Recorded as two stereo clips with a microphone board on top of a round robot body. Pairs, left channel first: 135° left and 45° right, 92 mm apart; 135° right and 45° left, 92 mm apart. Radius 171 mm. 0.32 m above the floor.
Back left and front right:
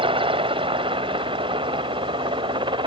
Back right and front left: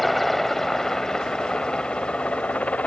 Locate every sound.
0.0 s a helicopter: 45° right; by 2.9 s 60° right